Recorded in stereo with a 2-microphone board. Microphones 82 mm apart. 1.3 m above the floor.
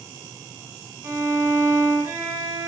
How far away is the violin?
About 0.7 m.